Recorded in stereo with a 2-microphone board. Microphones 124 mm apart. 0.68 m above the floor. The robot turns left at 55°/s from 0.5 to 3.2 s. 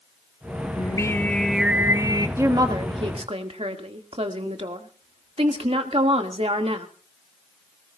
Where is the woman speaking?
25° right, 1.7 m; by 6.9 s 75° right, 1.7 m.